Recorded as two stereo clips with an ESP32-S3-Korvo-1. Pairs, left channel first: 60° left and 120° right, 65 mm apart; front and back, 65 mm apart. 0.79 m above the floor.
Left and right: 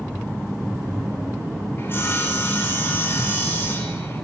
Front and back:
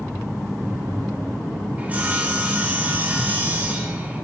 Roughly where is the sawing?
Behind left.